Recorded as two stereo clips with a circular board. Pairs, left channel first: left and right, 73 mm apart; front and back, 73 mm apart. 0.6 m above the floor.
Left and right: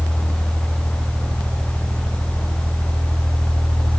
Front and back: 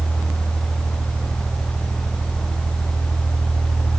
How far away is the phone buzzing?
No phone buzzing in this recording.